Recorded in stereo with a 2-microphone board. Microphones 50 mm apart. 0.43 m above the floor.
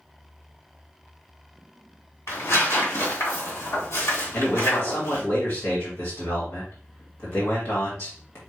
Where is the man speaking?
55° left (ahead or behind), 2 m.